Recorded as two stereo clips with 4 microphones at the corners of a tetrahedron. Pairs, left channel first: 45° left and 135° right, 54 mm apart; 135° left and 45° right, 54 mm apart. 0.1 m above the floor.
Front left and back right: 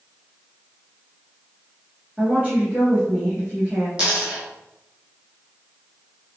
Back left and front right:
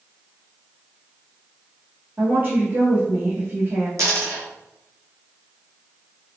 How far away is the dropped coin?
About 1.8 m.